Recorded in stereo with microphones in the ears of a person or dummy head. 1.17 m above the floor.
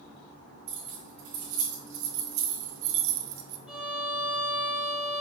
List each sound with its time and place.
0.7 s keys jangling: 30° right (ahead or behind), 1.7 m; by 3.6 s 75° right (ahead or behind), 0.7 m
3.7 s a violin: 5° right (ahead or behind), 1.2 m